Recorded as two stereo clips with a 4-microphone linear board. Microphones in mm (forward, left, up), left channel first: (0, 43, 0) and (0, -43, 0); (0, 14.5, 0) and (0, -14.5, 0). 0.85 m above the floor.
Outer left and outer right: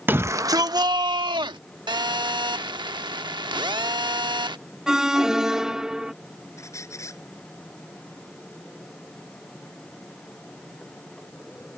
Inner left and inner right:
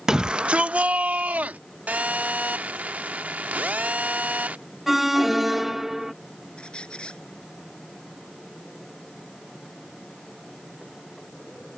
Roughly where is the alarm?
Centre.